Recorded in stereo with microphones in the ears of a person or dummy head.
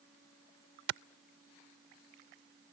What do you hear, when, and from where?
0.9 s a clap: 70° right (ahead or behind)